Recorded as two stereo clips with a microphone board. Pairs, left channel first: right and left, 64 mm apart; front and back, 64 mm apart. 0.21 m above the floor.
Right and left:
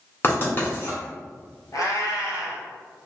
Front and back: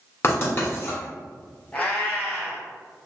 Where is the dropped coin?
No dropped coin in this recording.